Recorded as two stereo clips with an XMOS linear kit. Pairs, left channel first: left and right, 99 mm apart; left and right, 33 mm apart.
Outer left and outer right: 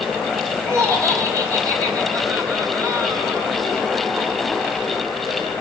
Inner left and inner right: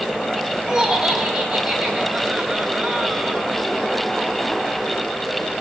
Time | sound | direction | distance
0.6 | laughter | 30° right (ahead or behind) | 3.5 m